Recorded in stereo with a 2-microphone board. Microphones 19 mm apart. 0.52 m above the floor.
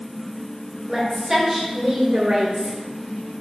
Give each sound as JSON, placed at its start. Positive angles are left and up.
{"t": 0.9, "sound": "a woman speaking", "side_deg": -20, "distance_m": 1.9}